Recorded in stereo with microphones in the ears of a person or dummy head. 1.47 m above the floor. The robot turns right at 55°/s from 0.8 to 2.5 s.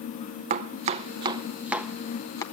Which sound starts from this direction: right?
Chopping, at 0.5 s.